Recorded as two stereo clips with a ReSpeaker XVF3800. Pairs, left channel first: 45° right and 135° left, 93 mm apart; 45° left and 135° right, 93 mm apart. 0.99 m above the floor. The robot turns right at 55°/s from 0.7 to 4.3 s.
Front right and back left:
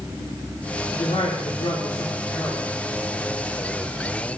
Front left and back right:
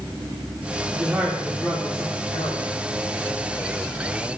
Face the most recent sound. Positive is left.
turn(degrees=125)